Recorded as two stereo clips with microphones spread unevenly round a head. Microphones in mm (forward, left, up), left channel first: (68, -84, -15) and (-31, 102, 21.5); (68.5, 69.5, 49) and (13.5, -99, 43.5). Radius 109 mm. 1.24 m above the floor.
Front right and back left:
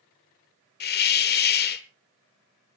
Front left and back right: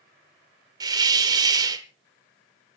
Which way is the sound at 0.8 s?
50° right.